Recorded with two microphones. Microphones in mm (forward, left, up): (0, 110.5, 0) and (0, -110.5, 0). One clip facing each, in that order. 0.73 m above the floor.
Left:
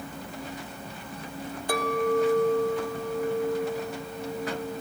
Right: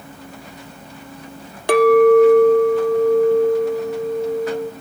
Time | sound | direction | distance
1.7 | a clink | 70° right (ahead or behind) | 0.7 m